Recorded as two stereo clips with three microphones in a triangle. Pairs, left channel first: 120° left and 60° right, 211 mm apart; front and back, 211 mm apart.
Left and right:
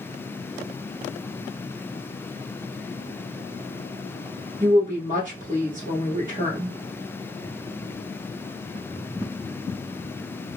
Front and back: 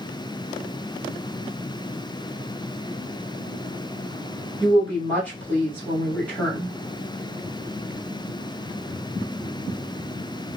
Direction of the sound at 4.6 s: 80° right.